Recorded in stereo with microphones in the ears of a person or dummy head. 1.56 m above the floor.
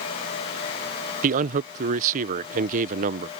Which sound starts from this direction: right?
A man speaking, at 1.2 s.